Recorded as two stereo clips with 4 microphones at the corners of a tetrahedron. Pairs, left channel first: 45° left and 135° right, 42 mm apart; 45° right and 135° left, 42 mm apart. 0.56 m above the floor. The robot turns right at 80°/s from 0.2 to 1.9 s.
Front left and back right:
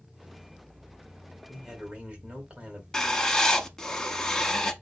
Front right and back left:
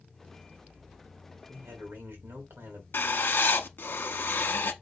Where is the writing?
25° right, 0.7 m.